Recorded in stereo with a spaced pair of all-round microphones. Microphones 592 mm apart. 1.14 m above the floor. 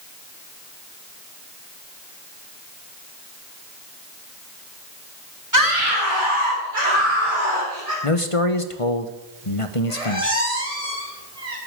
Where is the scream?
30° right (ahead or behind), 2.5 m; by 7.9 s 85° right, 3.5 m.